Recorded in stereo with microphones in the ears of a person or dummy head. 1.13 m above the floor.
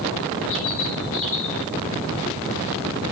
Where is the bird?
45° left (ahead or behind), 3 m.